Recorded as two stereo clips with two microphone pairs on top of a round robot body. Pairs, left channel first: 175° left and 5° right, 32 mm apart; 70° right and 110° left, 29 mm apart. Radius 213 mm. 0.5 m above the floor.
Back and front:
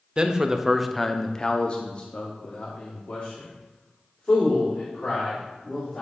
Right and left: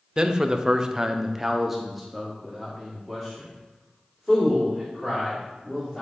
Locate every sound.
0.2 s a man speaking: 50° left, 0.9 m; by 6.0 s 150° right, 3 m